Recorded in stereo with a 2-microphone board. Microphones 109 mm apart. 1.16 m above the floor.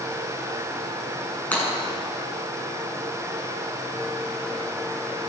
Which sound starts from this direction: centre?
Breaking glass, at 1.5 s.